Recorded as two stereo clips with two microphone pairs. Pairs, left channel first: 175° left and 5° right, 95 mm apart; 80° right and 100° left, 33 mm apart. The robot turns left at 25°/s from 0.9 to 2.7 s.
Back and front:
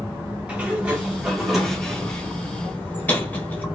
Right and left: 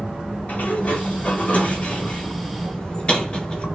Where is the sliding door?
80° right, 0.9 m; by 3.6 s 125° right, 0.9 m.